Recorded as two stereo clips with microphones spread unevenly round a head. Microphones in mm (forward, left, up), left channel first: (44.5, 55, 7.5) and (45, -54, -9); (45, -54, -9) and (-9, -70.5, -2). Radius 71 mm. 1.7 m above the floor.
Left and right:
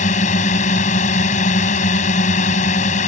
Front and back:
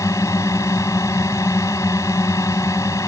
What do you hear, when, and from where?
0.0 s a drone: 90° left